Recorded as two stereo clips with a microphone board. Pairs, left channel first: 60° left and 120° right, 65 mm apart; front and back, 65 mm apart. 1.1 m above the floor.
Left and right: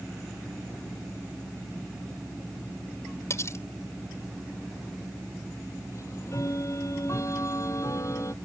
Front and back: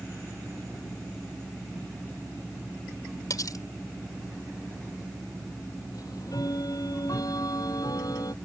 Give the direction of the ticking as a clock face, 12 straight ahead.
11 o'clock.